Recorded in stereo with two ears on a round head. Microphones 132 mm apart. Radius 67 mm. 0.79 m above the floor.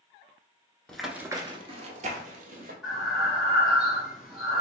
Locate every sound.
0.9 s running footsteps: 5° left (ahead or behind), 0.7 m; by 2.7 s 55° right (ahead or behind), 1.7 m
2.8 s breathing: centre (ahead or behind), 1.4 m